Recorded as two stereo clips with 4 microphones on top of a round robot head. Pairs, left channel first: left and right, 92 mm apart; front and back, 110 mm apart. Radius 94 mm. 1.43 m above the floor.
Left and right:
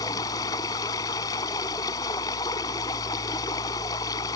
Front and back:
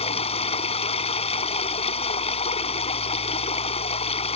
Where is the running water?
25° left.